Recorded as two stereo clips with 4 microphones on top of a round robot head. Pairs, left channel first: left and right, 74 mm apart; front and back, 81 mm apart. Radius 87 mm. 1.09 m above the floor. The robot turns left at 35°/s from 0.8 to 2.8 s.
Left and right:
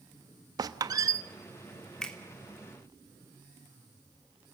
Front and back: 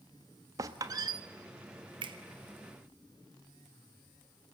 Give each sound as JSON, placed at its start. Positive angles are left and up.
{"t": 0.6, "sound": "a squeak", "azimuth_deg": -125, "distance_m": 1.1}
{"t": 2.0, "sound": "a finger snap", "azimuth_deg": 170, "distance_m": 3.0}